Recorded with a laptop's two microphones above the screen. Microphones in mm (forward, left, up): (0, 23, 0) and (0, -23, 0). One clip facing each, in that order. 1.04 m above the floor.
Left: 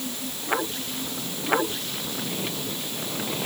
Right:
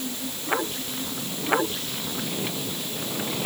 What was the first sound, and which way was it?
Only background noise.